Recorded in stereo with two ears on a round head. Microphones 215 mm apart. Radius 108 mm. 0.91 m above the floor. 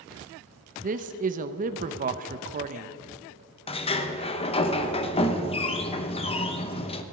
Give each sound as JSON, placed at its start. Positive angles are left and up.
{"t": 0.8, "sound": "a man speaking", "side_deg": -35, "distance_m": 0.7}
{"t": 3.7, "sound": "a sliding door", "side_deg": 25, "distance_m": 0.8}